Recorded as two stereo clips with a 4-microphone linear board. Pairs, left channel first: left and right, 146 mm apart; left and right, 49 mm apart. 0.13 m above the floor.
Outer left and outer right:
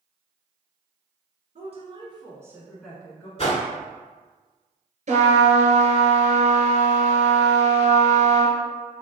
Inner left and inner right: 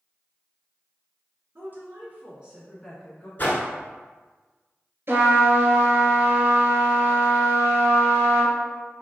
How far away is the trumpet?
About 1.3 m.